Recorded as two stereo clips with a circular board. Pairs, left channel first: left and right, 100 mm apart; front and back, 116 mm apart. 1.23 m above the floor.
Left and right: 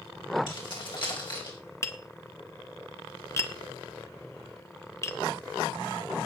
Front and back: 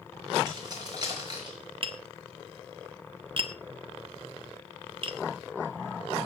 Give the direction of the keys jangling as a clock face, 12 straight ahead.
8 o'clock.